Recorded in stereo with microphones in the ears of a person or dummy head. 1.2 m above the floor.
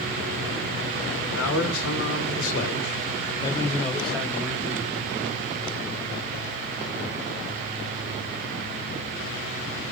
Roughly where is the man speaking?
Left.